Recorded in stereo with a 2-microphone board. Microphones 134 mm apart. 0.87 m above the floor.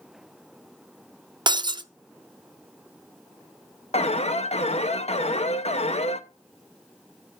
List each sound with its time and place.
1.5 s breaking glass: 35° right (ahead or behind), 0.5 m
3.9 s an alarm: 55° left (ahead or behind), 0.8 m